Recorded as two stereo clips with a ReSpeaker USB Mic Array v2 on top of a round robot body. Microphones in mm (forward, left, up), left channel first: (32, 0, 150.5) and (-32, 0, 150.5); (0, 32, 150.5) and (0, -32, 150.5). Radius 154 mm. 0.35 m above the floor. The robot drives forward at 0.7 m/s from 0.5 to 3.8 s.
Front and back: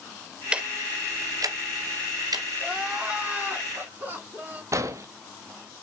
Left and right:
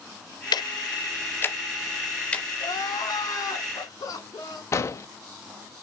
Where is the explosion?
135° left, 0.7 m.